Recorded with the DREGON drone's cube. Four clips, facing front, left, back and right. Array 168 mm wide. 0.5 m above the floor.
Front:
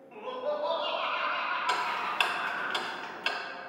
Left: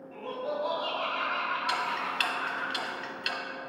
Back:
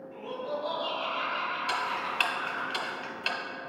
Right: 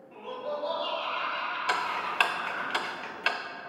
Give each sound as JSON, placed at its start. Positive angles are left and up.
{"t": 0.1, "sound": "laughter", "azimuth_deg": 15, "distance_m": 2.0}
{"t": 1.7, "sound": "ticking", "azimuth_deg": -85, "distance_m": 0.5}